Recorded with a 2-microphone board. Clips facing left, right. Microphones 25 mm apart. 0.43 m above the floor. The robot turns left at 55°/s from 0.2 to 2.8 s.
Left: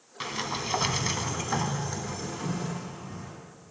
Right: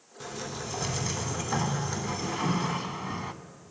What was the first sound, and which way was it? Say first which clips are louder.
A sliding door: left 5 dB; 85° left.